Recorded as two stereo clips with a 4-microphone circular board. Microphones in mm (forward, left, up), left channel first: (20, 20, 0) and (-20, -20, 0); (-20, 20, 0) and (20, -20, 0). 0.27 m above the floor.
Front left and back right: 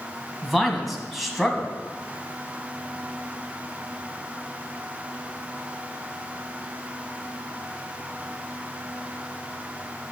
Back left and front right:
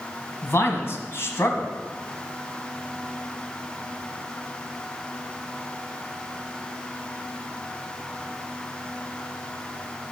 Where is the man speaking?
135° left, 1.9 m.